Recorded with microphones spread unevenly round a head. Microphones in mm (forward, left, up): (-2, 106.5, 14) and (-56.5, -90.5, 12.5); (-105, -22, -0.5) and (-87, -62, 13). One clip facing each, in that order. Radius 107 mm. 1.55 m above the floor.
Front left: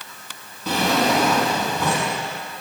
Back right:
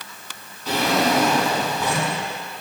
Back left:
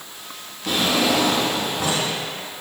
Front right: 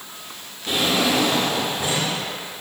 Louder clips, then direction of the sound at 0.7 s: Even, back left 1 dB; 80° left.